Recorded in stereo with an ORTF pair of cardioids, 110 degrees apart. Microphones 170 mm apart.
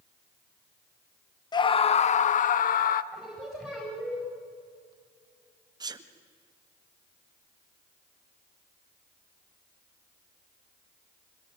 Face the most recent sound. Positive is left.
turn(degrees=-25)